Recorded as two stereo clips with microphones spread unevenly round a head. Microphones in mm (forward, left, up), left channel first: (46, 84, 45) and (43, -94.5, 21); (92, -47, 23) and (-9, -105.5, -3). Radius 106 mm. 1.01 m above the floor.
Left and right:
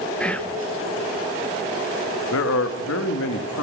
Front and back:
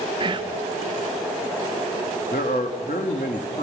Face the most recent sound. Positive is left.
turn(degrees=85)